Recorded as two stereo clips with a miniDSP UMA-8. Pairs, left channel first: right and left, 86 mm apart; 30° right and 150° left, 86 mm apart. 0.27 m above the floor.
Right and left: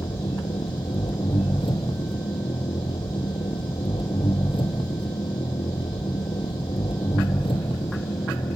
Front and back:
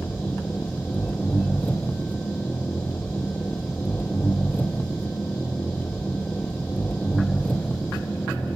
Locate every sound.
0.0 s an engine running: 100° right, 2 m